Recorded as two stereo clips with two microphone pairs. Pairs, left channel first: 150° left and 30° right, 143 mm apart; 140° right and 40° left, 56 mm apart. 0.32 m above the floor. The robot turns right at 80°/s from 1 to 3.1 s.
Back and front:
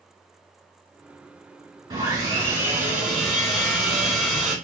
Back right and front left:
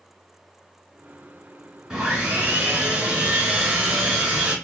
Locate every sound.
1.9 s sawing: 35° right, 1.4 m; by 4.5 s 60° left, 1.4 m